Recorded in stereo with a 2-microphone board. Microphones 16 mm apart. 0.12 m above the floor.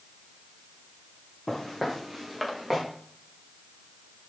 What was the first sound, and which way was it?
Footsteps, 15° left (ahead or behind).